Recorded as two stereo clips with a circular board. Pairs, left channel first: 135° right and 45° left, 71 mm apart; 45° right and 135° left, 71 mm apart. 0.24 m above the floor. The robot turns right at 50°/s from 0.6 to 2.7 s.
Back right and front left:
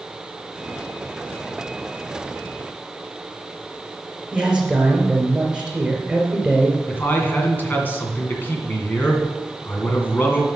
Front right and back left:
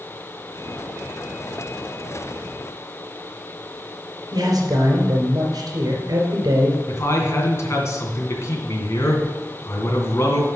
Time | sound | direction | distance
4.3 | a man speaking | 120° left | 3.5 m
6.9 | a man speaking | 80° right | 2.5 m